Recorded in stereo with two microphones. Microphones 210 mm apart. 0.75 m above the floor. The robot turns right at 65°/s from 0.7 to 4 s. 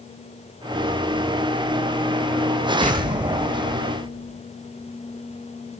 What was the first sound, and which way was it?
An explosion, 145° right.